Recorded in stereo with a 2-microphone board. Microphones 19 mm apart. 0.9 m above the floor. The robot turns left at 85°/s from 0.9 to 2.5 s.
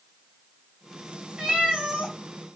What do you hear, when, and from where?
1.4 s a cat meowing: 60° right, 1.8 m; by 2.1 s 125° right, 1.8 m